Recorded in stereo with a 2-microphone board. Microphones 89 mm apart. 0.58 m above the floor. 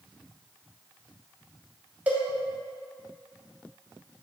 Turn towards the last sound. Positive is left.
turn(degrees=-20)  # may be behind; listen again after turning